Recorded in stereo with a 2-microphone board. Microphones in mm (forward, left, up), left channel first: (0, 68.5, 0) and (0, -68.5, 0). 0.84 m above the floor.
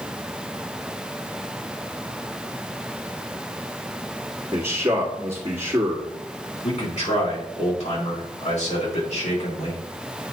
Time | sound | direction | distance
4.5 | a man speaking | 20° right (ahead or behind) | 1.6 m
6.6 | a man speaking | 55° left (ahead or behind) | 3 m